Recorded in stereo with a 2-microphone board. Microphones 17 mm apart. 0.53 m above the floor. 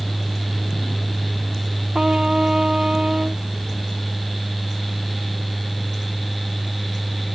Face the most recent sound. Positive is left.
turn(degrees=-65)  # may be behind; listen again after turning